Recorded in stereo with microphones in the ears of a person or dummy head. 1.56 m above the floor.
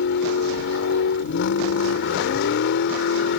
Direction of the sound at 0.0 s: 55° left (ahead or behind).